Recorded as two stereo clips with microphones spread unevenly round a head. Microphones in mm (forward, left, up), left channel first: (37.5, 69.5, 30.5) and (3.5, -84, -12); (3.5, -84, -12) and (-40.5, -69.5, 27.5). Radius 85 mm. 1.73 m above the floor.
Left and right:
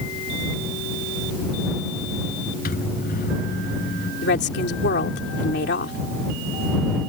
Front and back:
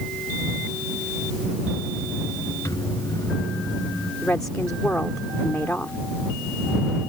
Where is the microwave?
50° left.